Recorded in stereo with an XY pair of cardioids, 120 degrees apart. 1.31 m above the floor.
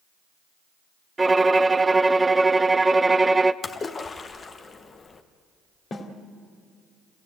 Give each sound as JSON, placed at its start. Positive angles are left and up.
{"t": 1.2, "sound": "a violin", "azimuth_deg": -20, "distance_m": 0.6}
{"t": 3.6, "sound": "a splash", "azimuth_deg": 30, "distance_m": 1.4}
{"t": 5.9, "sound": "a snare drum", "azimuth_deg": 40, "distance_m": 2.5}